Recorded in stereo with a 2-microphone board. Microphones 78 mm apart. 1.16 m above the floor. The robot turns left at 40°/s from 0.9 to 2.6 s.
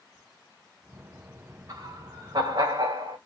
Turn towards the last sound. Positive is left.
turn(degrees=-85)